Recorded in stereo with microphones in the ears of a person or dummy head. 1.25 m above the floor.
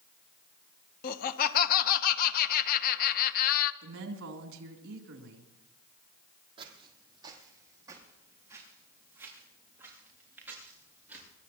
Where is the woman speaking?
70° right (ahead or behind), 3 m.